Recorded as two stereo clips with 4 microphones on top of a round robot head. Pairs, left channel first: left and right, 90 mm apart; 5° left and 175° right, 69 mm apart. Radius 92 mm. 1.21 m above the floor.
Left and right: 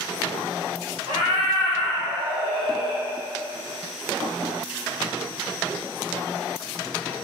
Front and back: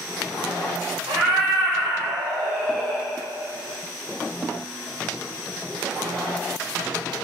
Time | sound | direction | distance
1.1 | a cat meowing | 140° right | 1.4 m